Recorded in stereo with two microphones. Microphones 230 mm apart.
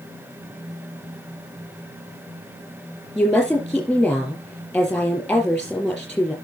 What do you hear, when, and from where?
3.1 s a woman speaking: 5° left (ahead or behind), 6 m